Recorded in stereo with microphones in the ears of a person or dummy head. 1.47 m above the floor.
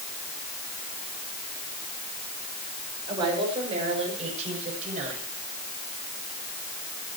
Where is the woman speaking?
25° right (ahead or behind), 6.5 m; by 5.3 s 45° right (ahead or behind), 8 m.